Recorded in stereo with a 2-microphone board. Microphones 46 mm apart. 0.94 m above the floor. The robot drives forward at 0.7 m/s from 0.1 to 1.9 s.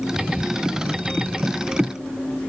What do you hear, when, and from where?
Only background noise.